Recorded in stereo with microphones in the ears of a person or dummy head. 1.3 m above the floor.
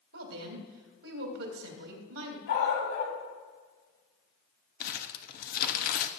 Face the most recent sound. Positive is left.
turn(degrees=50)  # may be behind; listen again after turning